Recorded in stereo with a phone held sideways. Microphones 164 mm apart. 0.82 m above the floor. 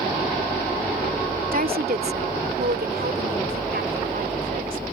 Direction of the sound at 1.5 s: 60° right (ahead or behind).